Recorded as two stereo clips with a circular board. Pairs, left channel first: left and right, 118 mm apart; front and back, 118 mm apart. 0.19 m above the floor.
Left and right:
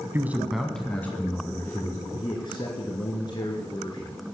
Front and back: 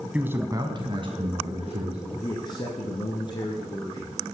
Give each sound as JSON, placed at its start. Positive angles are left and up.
{"t": 0.1, "sound": "a man speaking", "azimuth_deg": -115, "distance_m": 1.3}
{"t": 2.1, "sound": "a man speaking", "azimuth_deg": 45, "distance_m": 2.0}